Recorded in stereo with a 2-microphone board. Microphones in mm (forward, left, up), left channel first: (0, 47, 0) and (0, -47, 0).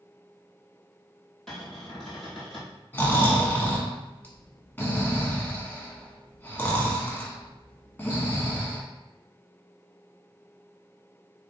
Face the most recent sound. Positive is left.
turn(degrees=20)  # may be behind; listen again after turning